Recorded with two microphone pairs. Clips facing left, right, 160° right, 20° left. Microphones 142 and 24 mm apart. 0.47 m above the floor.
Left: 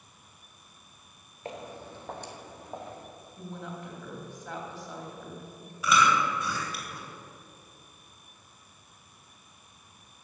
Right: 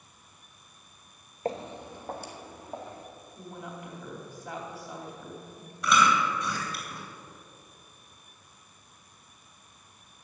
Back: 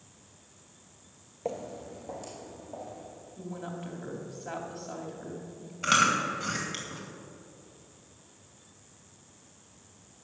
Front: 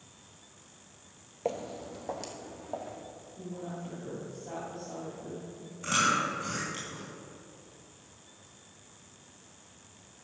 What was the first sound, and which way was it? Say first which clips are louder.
Footsteps: right 6 dB, front 1 dB; 45° right.